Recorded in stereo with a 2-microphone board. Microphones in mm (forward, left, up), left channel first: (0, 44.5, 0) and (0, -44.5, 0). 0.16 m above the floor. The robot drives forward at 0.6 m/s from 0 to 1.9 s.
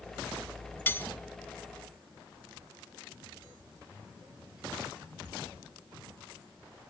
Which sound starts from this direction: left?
Cutlery clinking, at 0.9 s.